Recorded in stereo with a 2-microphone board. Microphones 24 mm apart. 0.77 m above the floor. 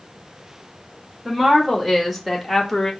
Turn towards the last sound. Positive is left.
turn(degrees=20)  # may be behind; listen again after turning